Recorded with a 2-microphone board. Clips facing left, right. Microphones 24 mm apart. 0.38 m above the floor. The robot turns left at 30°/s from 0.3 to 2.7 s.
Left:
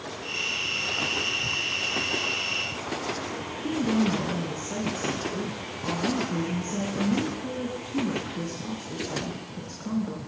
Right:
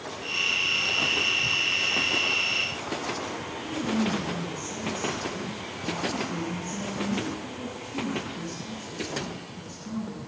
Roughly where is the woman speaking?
Left.